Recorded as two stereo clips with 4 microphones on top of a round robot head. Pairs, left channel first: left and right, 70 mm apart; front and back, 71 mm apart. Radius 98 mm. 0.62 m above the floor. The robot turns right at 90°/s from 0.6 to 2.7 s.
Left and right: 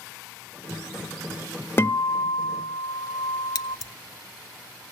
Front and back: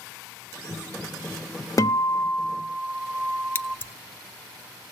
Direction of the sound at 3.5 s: 65° left.